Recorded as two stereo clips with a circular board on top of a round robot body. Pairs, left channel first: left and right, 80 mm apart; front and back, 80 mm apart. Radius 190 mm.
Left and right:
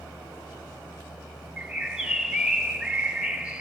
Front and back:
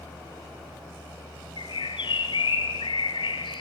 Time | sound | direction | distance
1.6 | a bird | 10° right | 2.5 m